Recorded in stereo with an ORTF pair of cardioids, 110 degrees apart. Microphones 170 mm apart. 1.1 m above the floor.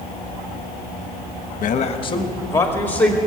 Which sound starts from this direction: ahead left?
A man speaking, at 1.6 s.